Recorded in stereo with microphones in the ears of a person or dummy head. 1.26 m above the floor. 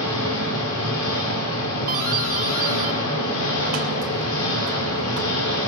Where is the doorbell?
50° right (ahead or behind), 2.5 m.